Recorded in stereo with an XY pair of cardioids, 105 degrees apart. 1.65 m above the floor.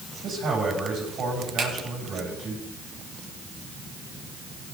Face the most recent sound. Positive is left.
turn(degrees=-70)